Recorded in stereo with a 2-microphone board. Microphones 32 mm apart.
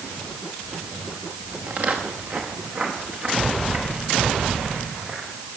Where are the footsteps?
55° right (ahead or behind), 4 m; by 5.3 s 35° right (ahead or behind), 8.5 m.